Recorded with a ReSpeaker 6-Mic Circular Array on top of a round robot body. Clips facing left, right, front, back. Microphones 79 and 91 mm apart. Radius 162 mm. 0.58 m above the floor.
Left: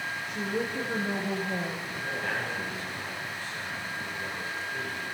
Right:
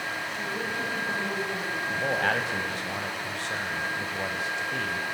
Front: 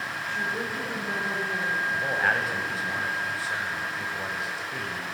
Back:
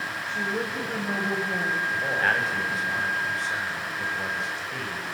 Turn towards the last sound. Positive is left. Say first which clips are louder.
# right 9 dB, even
turn(degrees=-85)